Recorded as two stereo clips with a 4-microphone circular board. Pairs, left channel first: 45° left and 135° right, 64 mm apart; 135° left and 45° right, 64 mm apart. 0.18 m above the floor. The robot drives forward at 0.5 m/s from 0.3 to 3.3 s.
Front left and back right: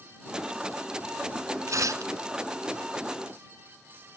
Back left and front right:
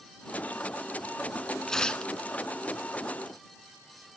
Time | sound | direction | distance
1.7 | tearing paper | 145° right | 0.8 m